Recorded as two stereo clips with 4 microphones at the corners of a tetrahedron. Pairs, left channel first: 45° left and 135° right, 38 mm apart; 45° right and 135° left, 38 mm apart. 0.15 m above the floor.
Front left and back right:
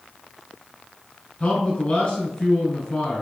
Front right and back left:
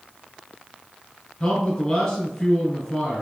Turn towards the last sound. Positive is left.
turn(degrees=15)